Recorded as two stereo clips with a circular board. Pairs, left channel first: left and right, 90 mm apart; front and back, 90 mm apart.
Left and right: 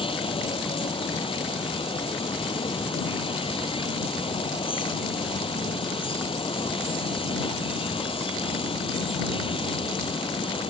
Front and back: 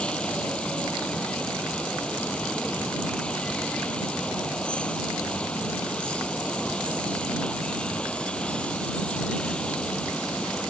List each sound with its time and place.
0.0 s running water: 80° left